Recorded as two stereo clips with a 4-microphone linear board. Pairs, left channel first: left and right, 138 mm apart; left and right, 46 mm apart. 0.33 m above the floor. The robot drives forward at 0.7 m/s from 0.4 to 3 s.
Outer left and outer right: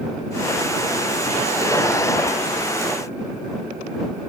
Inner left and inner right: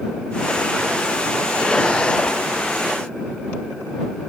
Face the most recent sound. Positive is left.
No sound to turn to.